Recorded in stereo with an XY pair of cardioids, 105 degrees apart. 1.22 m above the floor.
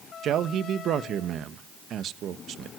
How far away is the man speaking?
About 1.2 m.